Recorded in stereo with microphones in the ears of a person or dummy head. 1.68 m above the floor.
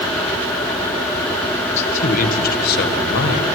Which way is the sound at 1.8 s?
40° left (ahead or behind).